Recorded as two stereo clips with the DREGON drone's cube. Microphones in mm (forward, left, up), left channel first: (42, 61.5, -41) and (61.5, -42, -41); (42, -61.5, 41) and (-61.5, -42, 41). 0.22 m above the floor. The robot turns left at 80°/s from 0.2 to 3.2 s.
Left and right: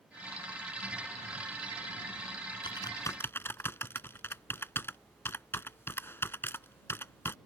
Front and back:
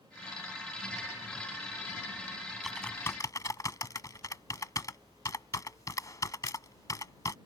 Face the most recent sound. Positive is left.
turn(degrees=40)